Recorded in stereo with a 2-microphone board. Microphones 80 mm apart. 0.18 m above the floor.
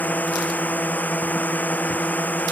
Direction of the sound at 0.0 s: 20° left (ahead or behind).